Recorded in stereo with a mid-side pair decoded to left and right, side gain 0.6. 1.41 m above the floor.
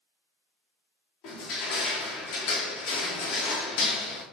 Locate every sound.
1.2 s crushing: 70° left, 0.7 m